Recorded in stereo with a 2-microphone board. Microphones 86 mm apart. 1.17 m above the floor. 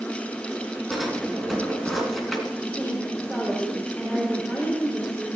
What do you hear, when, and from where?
0.9 s a drawer: centre (ahead or behind), 3.5 m
2.6 s a woman speaking: 10° right (ahead or behind), 3.5 m